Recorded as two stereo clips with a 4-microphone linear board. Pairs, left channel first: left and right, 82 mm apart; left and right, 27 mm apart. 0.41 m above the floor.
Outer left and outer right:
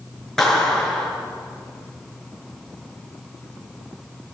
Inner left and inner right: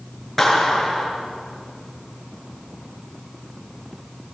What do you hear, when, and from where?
0.4 s a clap: 5° left (ahead or behind), 6 m